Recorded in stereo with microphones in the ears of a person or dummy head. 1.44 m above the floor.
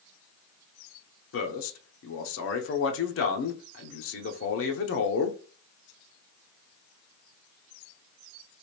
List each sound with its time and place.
1.3 s a man speaking: 70° left (ahead or behind), 0.8 m